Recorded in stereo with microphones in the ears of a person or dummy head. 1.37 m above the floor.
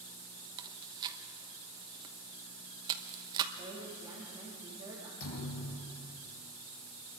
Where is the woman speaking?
15° right (ahead or behind), 2.5 m.